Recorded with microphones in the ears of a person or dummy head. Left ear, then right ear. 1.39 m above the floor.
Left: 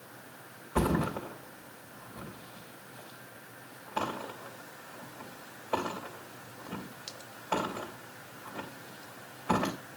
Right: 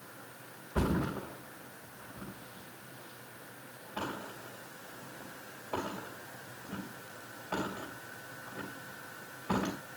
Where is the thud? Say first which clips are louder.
Left 4 dB; 35° left (ahead or behind), 3 m.